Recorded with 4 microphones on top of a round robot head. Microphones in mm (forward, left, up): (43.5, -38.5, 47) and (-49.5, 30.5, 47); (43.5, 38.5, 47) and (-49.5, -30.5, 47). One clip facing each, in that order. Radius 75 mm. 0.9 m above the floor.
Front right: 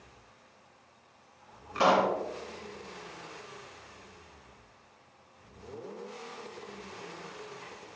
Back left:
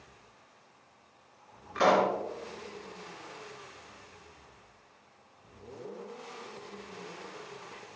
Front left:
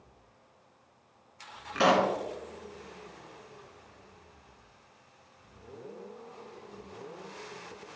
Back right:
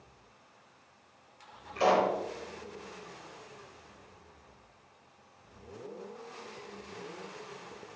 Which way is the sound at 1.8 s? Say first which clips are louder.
Even, front left 1 dB; 40° left.